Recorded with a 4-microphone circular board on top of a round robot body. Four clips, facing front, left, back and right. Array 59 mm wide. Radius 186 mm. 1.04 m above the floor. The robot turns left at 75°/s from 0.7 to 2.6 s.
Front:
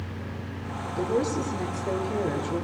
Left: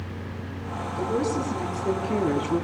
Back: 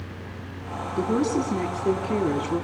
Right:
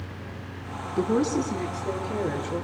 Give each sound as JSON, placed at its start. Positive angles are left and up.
{"t": 1.0, "sound": "a woman speaking", "azimuth_deg": -130, "distance_m": 3.5}